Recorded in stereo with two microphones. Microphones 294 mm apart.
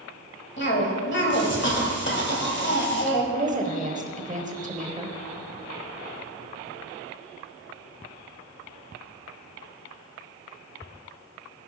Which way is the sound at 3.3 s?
25° right (ahead or behind).